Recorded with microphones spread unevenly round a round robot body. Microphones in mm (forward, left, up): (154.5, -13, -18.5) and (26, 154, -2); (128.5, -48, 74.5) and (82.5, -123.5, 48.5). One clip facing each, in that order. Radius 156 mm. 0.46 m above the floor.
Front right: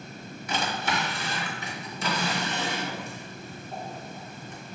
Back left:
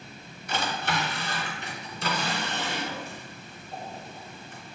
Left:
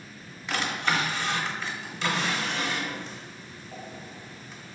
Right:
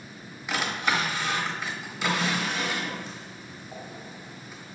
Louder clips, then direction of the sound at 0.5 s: Even, even; 45° right.